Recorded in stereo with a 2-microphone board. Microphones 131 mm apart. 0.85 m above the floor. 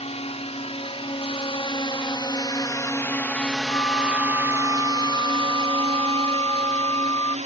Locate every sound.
0.0 s a drone: 55° left (ahead or behind); by 7.5 s 65° right (ahead or behind)
3.7 s a flute: 30° left (ahead or behind)